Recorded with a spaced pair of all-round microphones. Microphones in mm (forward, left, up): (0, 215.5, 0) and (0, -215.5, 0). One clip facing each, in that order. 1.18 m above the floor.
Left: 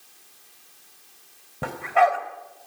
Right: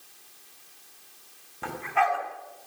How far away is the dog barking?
About 2.5 m.